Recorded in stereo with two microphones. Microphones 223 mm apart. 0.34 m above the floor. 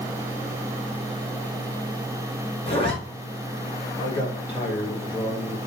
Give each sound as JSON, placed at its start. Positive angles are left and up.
{"t": 2.7, "sound": "a zipper", "side_deg": 25, "distance_m": 1.3}
{"t": 4.0, "sound": "a man speaking", "side_deg": 20, "distance_m": 1.4}